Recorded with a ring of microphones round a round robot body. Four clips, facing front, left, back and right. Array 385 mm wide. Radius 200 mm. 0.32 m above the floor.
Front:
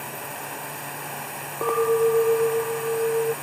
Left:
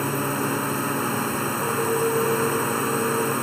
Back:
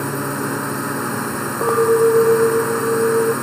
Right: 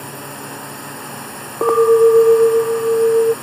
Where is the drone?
150° left.